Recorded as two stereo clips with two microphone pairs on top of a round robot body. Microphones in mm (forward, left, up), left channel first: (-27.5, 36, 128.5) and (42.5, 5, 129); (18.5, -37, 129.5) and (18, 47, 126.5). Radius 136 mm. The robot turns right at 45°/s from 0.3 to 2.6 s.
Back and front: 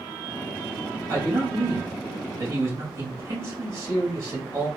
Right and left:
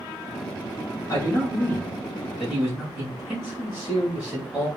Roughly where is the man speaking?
Ahead right.